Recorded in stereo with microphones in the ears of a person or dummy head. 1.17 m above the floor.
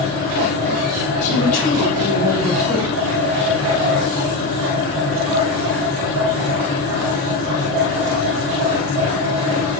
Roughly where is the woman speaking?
Left.